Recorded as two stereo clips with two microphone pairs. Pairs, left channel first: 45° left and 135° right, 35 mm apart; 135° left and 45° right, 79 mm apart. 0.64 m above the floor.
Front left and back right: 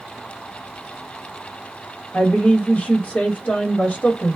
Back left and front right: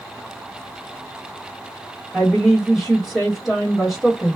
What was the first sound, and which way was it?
A woman speaking, 45° left.